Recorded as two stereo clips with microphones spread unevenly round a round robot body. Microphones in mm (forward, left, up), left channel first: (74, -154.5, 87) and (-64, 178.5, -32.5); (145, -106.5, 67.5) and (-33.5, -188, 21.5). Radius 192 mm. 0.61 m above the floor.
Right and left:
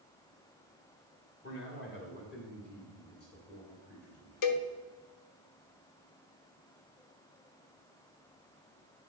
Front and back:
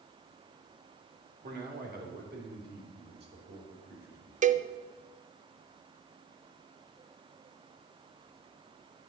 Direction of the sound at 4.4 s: 115° right.